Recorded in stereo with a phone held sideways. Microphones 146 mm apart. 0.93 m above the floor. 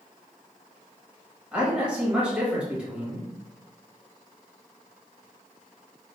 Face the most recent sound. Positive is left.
turn(degrees=-10)  # may be behind; listen again after turning